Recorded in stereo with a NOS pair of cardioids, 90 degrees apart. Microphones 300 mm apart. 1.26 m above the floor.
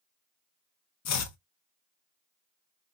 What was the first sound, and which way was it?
Chopping, 60° left.